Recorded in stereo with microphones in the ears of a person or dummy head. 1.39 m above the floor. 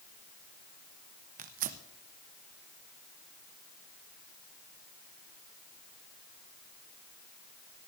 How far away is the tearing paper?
About 0.7 m.